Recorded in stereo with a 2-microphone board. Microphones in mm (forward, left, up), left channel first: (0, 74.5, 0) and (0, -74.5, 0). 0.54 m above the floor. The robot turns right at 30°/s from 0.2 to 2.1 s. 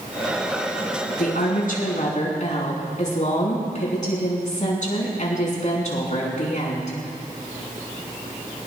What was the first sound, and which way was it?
A woman speaking, 80° left.